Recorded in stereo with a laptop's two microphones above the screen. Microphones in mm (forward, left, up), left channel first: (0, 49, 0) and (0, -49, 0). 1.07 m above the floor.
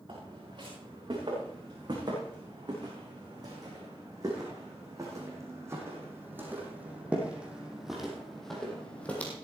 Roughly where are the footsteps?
Right.